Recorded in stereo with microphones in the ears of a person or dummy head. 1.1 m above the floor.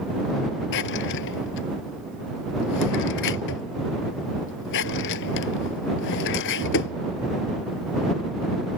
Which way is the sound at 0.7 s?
65° left (ahead or behind).